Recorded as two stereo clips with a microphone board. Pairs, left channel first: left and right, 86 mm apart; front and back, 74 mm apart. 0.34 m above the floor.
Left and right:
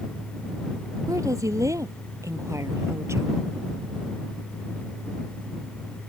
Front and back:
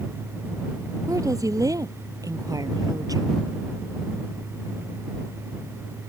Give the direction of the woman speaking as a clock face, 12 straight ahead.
5 o'clock.